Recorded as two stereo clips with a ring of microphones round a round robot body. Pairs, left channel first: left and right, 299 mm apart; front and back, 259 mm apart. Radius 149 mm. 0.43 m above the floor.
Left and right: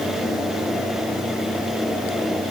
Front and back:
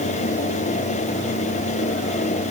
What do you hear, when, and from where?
Only background noise.